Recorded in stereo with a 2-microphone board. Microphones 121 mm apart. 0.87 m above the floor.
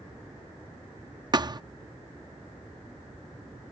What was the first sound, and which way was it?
A thud, 35° right (ahead or behind).